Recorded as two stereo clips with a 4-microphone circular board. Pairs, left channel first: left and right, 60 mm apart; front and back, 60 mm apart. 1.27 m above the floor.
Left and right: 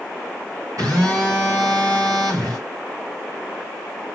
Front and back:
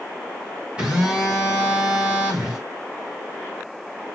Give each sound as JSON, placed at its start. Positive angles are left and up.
{"t": 0.8, "sound": "a phone buzzing", "azimuth_deg": -105, "distance_m": 5.5}